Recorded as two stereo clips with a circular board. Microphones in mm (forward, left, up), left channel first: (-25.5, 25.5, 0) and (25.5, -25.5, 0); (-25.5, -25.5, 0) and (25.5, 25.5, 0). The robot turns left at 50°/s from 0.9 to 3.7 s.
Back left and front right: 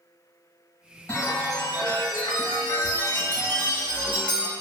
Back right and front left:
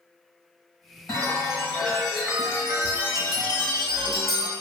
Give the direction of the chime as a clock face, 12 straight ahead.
6 o'clock.